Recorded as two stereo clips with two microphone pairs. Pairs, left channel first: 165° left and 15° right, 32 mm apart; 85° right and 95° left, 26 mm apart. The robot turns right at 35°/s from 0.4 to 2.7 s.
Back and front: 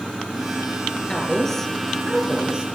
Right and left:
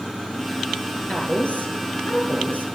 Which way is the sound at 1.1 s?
125° right.